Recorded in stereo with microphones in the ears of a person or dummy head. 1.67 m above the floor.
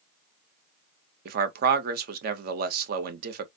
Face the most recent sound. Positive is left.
turn(degrees=-55)  # may be behind; listen again after turning